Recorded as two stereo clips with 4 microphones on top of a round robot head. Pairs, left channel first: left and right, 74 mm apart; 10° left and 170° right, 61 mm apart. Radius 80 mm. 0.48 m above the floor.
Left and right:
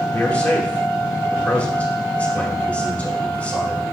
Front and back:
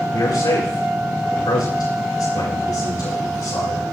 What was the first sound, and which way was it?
A man speaking, 15° left.